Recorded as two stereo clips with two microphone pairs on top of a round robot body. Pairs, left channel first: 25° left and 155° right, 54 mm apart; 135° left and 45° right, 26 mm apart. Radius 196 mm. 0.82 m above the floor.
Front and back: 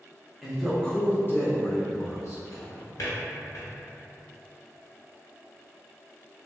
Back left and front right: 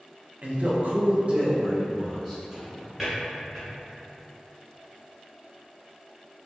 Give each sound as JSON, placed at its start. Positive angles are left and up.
{"t": 0.4, "sound": "a man speaking", "azimuth_deg": -65, "distance_m": 0.8}
{"t": 2.5, "sound": "a drawer", "azimuth_deg": 40, "distance_m": 0.8}